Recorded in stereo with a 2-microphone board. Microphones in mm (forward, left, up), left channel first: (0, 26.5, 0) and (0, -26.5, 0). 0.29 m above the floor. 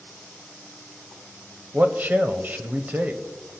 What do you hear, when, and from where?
1.7 s a man speaking: 35° right (ahead or behind), 1.1 m